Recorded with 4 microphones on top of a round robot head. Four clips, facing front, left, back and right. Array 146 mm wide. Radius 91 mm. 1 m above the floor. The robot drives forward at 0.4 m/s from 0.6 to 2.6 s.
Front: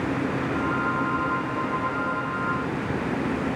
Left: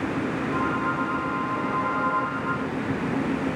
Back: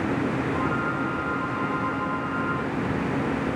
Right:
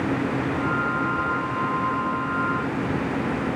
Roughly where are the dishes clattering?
I don't hear dishes clattering.